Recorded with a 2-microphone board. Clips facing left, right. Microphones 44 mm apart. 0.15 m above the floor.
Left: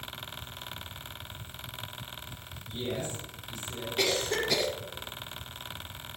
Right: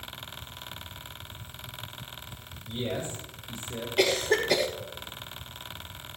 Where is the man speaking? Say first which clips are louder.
Right 2 dB; 65° right (ahead or behind), 5 m.